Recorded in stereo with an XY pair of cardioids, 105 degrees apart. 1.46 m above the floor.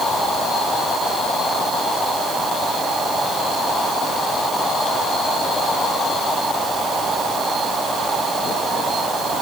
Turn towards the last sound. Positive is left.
No sound to turn to.